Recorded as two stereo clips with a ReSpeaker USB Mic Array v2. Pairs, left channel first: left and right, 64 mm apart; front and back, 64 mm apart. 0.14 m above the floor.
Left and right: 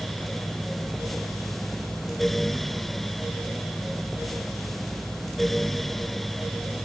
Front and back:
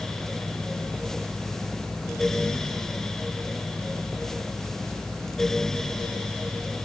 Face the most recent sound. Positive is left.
No sound to turn to.